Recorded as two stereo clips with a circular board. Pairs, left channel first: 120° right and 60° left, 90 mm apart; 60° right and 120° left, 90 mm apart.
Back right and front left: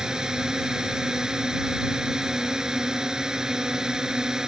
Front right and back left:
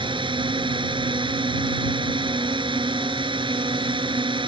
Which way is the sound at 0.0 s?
145° left.